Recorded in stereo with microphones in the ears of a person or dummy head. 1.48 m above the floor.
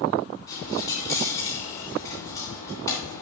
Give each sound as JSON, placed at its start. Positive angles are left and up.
{"t": 0.5, "sound": "a dropped coin", "side_deg": 25, "distance_m": 2.0}